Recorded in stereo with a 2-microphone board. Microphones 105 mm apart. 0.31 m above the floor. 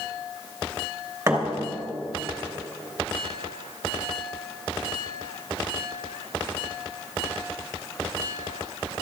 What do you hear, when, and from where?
1.3 s a thud: 25° right (ahead or behind), 2.5 m